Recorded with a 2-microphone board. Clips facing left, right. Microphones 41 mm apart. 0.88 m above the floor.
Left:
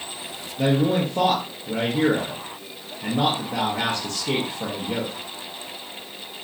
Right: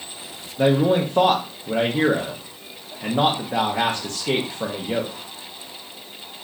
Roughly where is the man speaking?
Right.